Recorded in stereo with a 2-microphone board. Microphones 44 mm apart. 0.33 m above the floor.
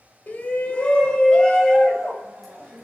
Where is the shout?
35° left (ahead or behind), 1.4 m; by 2.9 s 5° left (ahead or behind), 2.5 m.